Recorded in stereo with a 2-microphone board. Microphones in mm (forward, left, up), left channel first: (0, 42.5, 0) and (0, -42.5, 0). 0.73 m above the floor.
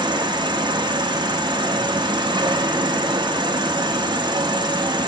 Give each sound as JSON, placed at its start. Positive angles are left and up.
{"t": 0.0, "sound": "an insect", "side_deg": -55, "distance_m": 0.8}